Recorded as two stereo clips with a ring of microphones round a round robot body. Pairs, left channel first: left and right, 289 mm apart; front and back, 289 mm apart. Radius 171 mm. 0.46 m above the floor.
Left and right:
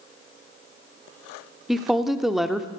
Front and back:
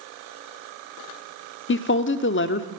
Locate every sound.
1.7 s a woman speaking: straight ahead, 0.9 m